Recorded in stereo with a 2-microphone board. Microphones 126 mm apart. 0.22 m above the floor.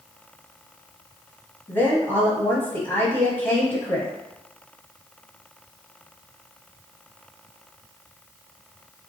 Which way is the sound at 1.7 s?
15° left (ahead or behind).